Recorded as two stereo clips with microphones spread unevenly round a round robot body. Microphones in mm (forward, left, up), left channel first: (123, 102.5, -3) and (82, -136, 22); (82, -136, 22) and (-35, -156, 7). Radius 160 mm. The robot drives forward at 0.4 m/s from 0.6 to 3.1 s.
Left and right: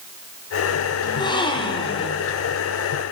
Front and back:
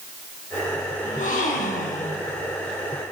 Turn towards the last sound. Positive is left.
turn(degrees=20)